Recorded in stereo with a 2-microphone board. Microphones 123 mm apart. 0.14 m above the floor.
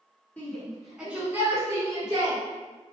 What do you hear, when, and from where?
0.4 s a shout: 10° left (ahead or behind), 1.4 m; by 2.4 s 40° right (ahead or behind), 1.5 m